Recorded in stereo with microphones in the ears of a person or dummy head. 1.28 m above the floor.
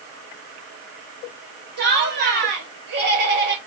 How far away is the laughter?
About 1.3 m.